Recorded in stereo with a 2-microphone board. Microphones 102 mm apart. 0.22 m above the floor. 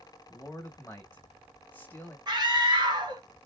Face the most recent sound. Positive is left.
turn(degrees=-45)  # may be behind; listen again after turning